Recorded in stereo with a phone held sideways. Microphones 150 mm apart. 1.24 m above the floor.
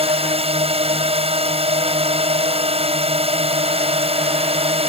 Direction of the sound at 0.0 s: 40° right (ahead or behind).